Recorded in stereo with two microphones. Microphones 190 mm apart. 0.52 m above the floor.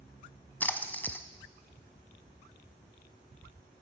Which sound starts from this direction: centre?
A splash, at 0.6 s.